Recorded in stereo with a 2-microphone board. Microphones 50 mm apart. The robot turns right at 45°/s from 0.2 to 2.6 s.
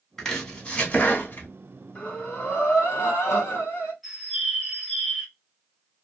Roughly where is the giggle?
I don't hear a giggle.